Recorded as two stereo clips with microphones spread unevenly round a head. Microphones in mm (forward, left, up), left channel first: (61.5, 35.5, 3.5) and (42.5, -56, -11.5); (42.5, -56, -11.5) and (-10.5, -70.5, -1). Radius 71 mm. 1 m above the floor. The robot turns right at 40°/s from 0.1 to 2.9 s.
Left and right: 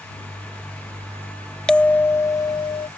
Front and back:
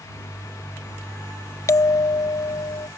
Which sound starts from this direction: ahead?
A bell, at 1.7 s.